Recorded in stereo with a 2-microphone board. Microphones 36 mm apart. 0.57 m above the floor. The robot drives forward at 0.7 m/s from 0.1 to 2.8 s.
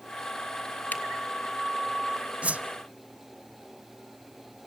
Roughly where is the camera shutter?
Left.